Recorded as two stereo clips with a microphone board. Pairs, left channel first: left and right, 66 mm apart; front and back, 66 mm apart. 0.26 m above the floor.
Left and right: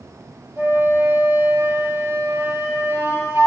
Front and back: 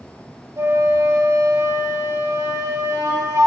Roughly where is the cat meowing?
No cat meowing in this recording.